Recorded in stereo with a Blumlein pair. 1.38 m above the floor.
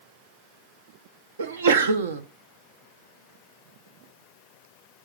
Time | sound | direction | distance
1.4 | a sneeze | 65° right | 0.8 m